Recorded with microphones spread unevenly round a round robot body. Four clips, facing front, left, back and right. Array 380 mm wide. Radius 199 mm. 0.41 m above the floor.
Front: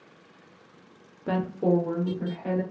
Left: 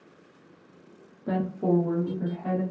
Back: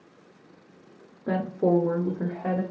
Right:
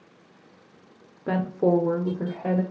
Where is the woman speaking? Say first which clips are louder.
Right 3 dB, back 1 dB; 90° right, 0.8 m; by 2.6 s 120° right, 1.6 m.